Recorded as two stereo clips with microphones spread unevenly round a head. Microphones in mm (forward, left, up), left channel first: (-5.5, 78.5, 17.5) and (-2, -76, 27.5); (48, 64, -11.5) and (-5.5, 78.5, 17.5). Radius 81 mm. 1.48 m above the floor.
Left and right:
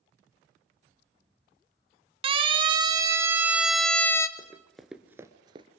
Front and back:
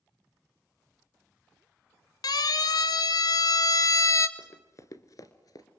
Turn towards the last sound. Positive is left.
turn(degrees=-60)